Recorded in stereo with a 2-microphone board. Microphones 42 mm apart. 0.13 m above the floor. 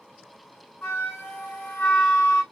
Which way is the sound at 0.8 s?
45° left (ahead or behind).